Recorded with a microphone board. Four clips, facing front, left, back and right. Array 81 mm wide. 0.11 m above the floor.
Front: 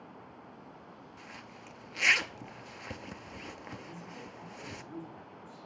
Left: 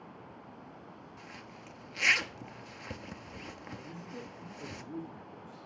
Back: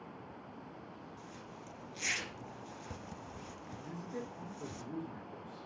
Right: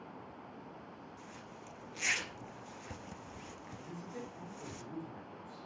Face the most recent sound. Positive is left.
turn(degrees=-175)